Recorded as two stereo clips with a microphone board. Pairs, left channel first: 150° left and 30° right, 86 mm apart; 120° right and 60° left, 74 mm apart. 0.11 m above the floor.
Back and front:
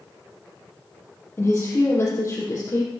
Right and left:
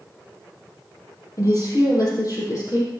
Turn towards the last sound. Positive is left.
turn(degrees=-155)